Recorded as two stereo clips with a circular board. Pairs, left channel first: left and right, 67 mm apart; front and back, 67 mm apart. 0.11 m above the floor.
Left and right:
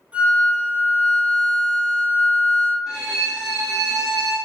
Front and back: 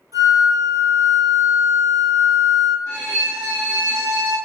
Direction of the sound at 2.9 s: Straight behind.